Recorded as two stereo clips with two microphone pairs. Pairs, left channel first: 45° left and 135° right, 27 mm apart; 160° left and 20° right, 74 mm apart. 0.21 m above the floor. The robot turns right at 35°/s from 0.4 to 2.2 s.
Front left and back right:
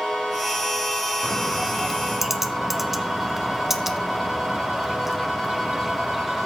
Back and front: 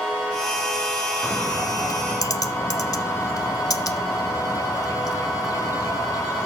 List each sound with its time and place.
1.2 s a bird: 110° left, 0.6 m; by 6.5 s 145° left, 0.6 m